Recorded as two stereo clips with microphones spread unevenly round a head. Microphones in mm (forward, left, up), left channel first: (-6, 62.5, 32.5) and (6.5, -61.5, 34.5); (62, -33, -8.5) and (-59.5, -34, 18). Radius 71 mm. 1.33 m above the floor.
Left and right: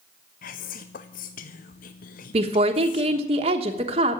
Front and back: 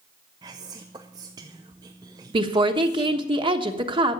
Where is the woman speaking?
130° right, 1.2 m.